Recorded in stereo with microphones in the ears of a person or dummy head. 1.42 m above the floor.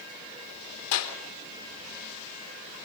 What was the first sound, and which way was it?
A clap, 80° left.